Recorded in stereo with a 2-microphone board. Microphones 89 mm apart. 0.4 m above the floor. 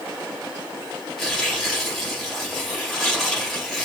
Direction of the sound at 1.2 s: 5° left (ahead or behind).